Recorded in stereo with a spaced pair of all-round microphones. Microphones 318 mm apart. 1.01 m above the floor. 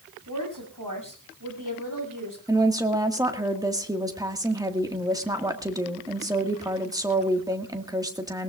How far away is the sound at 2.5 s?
About 1.8 m.